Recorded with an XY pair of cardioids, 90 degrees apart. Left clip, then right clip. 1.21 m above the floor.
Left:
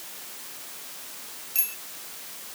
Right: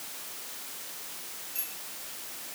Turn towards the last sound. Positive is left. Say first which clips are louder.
# left 10 dB
turn(degrees=65)